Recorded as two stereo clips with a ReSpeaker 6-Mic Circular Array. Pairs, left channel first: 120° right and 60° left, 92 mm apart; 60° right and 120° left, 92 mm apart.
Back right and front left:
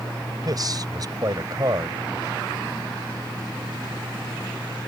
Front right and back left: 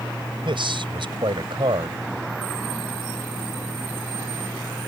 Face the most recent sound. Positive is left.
turn(degrees=100)